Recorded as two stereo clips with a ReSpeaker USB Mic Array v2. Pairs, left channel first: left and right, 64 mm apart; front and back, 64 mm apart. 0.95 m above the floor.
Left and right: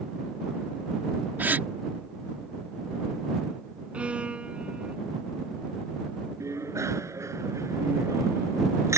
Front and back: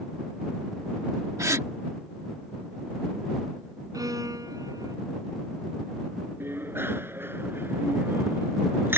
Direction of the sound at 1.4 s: 145° right.